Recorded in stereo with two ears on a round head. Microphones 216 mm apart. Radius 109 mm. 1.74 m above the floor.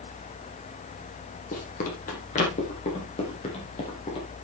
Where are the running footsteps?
35° left (ahead or behind), 4 m; by 4.3 s 25° left (ahead or behind), 5 m.